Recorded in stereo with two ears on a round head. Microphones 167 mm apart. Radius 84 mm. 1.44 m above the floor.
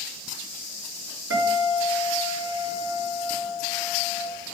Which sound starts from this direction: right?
A guitar, at 1.3 s.